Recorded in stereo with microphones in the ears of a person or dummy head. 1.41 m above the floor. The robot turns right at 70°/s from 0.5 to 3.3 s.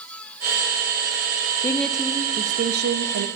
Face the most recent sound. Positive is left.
turn(degrees=-80)